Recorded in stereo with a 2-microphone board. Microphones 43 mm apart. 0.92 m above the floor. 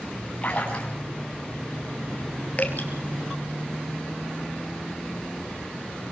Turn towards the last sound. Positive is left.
turn(degrees=35)  # may be behind; listen again after turning